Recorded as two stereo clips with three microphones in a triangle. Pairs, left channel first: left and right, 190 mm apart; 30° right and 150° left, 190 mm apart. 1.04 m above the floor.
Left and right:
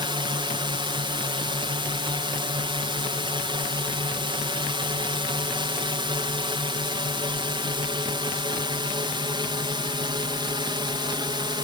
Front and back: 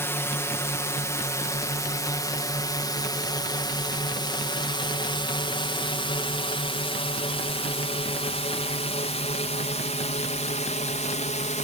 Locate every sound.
0.0 s a drone: 90° right; by 11.6 s 40° right